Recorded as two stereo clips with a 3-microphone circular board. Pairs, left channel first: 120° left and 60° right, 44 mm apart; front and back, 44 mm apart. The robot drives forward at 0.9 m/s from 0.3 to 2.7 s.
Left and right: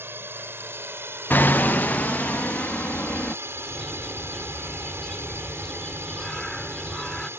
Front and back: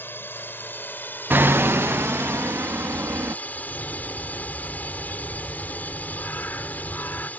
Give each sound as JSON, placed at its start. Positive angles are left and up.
{"t": 0.0, "sound": "a drone", "azimuth_deg": -35}
{"t": 1.3, "sound": "hammering", "azimuth_deg": 150}
{"t": 3.5, "sound": "a bird", "azimuth_deg": 40}